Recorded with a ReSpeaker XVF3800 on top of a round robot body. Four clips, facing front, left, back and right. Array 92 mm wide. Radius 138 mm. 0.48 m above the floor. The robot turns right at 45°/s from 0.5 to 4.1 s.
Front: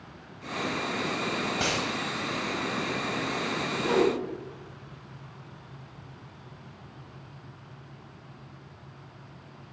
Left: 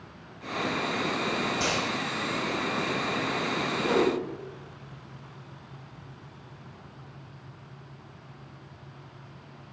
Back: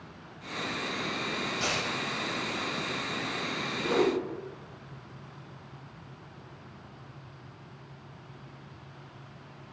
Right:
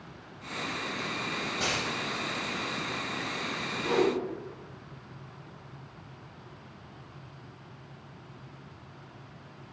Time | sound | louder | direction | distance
1.6 | a dropped coin | left 3 dB, front 2 dB | 15° left | 1.7 m
3.8 | a whoosh | left 1 dB, front 2 dB | 70° left | 3 m